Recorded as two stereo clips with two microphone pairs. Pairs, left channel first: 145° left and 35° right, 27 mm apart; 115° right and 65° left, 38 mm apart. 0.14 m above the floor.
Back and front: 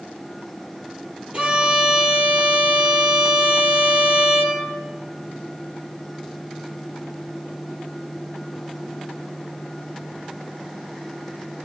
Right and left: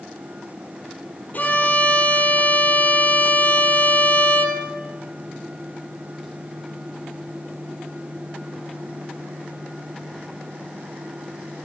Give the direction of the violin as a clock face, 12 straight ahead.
2 o'clock.